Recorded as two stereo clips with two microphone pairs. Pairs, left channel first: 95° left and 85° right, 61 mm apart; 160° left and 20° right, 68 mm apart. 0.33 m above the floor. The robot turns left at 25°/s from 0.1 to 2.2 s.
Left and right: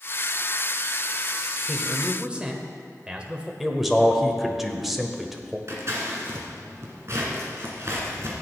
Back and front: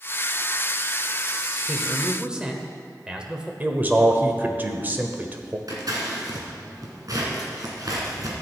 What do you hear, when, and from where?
1.7 s a man speaking: 55° right, 1.1 m; by 3.5 s 65° right, 1.1 m
3.6 s a man speaking: straight ahead, 1.0 m
5.7 s scissors: 45° right, 2 m